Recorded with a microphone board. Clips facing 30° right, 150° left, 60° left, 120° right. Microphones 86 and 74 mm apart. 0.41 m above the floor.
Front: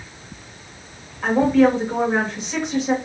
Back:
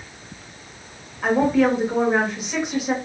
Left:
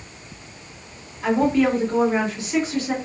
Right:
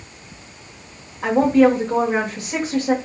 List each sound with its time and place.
1.2 s a woman speaking: 125° right, 1.2 m